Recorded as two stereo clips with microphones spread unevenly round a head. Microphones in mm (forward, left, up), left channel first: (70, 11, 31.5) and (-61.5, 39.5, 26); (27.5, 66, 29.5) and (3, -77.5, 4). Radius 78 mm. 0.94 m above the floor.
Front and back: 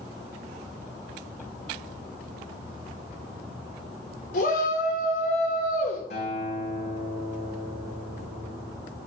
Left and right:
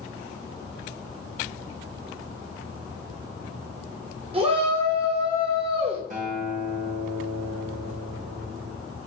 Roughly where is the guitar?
Ahead right.